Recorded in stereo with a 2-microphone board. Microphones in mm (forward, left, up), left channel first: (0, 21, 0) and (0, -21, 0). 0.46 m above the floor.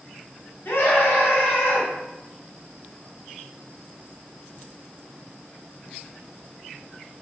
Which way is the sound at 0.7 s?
55° left (ahead or behind).